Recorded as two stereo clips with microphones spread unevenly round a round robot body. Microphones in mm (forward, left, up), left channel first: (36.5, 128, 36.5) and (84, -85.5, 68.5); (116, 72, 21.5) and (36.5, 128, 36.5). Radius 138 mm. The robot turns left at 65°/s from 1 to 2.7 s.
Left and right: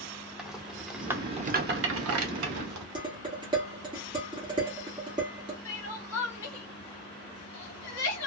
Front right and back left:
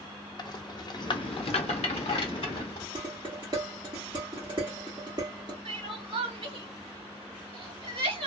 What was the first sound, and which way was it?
A rattle, 10° left.